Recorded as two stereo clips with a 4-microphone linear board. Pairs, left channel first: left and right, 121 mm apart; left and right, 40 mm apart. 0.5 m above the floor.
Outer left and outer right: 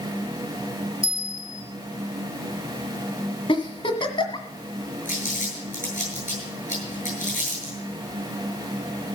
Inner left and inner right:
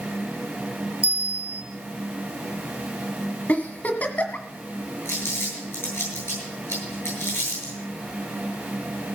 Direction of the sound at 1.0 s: 80° left.